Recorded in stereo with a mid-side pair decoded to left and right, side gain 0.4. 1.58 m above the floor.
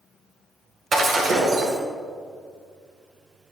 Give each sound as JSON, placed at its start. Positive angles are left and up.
{"t": 0.9, "sound": "breaking glass", "azimuth_deg": -60, "distance_m": 5.0}